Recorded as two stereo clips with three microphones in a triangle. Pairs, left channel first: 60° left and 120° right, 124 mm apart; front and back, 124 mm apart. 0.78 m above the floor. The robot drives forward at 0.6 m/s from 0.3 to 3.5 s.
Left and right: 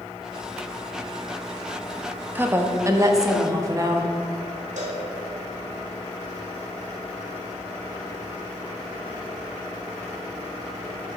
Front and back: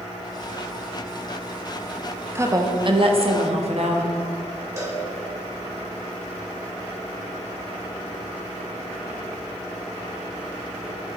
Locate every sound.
2.4 s a woman speaking: 160° right, 0.6 m; by 4.1 s 175° right, 1.1 m
4.8 s a cowbell: 115° right, 1.9 m